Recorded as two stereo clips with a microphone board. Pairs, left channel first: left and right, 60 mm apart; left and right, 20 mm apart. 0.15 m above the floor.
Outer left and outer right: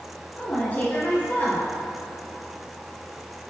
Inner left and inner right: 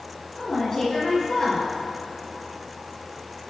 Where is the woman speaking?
30° left (ahead or behind), 2 m.